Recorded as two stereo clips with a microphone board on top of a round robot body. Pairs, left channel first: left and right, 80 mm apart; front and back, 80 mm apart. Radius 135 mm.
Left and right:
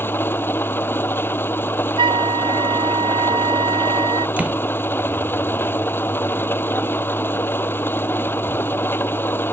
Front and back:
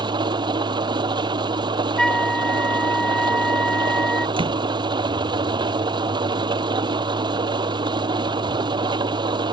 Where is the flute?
85° right.